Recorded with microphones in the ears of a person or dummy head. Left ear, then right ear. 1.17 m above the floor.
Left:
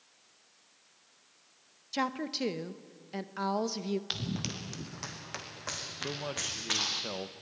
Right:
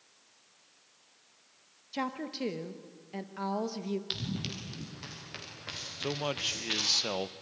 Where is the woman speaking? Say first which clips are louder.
Left 3 dB; 20° left (ahead or behind), 0.9 m.